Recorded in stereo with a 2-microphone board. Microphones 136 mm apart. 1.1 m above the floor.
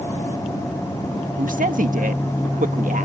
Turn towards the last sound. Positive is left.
turn(degrees=-75)  # may be behind; listen again after turning